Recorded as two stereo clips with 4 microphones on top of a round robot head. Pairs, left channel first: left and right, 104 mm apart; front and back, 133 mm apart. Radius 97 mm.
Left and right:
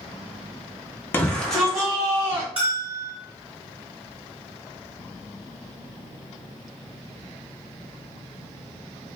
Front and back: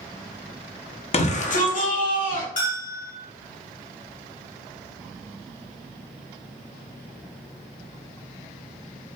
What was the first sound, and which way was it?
A shout, 20° left.